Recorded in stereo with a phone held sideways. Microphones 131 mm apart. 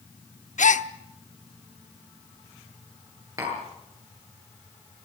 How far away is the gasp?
About 0.8 m.